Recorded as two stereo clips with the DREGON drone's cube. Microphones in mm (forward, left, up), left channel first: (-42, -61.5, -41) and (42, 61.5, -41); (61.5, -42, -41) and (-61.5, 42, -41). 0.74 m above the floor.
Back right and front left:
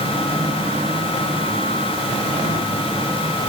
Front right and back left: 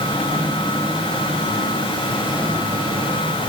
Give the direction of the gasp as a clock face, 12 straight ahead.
No gasp in this recording.